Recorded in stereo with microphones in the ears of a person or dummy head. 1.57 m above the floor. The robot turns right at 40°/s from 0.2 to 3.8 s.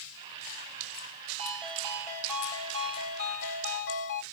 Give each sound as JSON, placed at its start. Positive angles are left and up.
{"t": 1.4, "sound": "a ringtone", "azimuth_deg": -30, "distance_m": 2.5}